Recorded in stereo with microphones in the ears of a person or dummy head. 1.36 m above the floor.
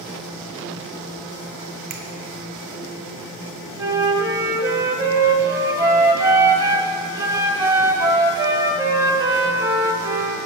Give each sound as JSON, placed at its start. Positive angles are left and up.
{"t": 1.9, "sound": "a finger snap", "side_deg": -35, "distance_m": 0.6}
{"t": 3.8, "sound": "a flute", "side_deg": -20, "distance_m": 0.7}